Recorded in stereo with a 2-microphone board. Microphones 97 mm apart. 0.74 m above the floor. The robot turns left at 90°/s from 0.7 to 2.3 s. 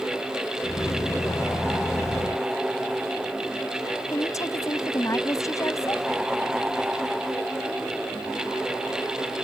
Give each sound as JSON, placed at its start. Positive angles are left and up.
{"t": 4.1, "sound": "a woman speaking", "side_deg": 35}